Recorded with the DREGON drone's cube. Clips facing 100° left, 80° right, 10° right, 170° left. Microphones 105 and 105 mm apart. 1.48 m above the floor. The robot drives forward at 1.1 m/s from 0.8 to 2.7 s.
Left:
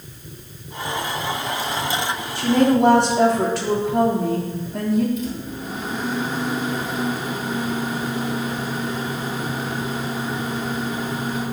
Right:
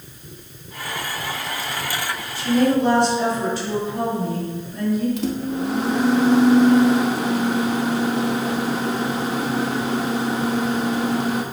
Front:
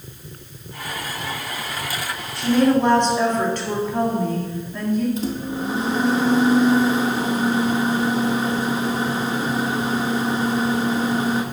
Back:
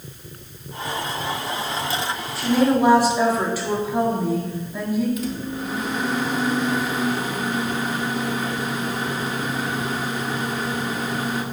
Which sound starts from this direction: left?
A woman speaking, at 2.4 s.